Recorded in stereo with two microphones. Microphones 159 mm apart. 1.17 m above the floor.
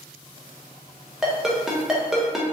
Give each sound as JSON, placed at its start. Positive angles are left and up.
{"t": 1.2, "sound": "a ringtone", "side_deg": -5, "distance_m": 0.6}